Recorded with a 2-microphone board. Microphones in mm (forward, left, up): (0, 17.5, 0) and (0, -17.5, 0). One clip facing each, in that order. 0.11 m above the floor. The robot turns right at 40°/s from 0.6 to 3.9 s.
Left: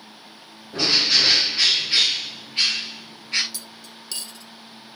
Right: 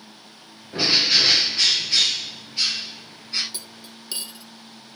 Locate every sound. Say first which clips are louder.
0.7 s a bird: even; 25° right, 1.4 m; by 3.4 s 85° left, 1.4 m
3.5 s cutlery clinking: even; 30° right (ahead or behind), 0.7 m; by 4.5 s 25° right (ahead or behind), 0.7 m